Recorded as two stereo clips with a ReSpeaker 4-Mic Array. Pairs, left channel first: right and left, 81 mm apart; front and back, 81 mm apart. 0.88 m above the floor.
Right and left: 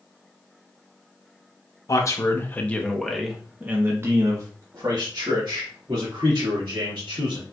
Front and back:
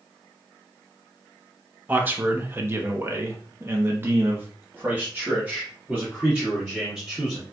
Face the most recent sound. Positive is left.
turn(degrees=105)